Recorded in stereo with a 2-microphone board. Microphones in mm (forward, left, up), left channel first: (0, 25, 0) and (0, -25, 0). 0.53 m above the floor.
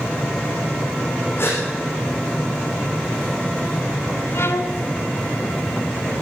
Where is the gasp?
45° left (ahead or behind), 7.5 m.